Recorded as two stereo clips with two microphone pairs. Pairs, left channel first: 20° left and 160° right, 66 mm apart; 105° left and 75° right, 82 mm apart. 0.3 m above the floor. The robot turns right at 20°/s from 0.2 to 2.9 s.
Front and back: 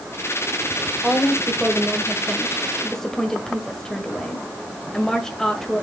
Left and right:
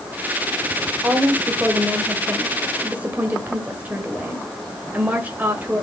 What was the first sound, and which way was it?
A woman speaking, 90° right.